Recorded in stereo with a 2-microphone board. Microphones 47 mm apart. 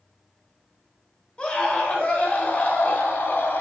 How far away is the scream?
About 8.5 m.